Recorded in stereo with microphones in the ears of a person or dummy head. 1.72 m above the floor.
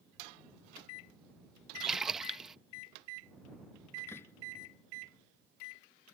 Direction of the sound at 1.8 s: 10° right (ahead or behind).